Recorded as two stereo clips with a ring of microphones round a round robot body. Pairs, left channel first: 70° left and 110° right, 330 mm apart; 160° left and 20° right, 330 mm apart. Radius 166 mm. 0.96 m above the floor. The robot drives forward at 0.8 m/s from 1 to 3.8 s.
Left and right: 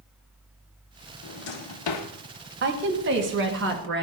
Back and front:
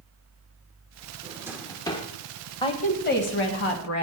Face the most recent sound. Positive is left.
turn(degrees=-165)